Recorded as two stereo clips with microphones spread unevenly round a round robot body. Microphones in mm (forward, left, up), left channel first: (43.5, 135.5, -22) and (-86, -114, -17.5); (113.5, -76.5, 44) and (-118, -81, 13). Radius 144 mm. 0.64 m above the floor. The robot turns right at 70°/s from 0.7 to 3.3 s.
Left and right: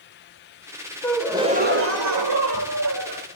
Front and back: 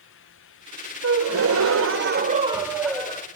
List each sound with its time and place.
1.0 s a gasp: 145° left, 2.5 m; by 3.3 s 60° right, 2.5 m